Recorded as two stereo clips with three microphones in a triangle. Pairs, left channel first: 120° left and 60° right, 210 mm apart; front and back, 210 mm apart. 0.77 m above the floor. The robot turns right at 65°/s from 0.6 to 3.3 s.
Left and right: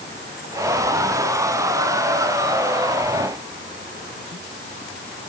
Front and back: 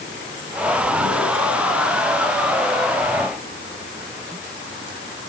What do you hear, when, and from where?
Only background noise.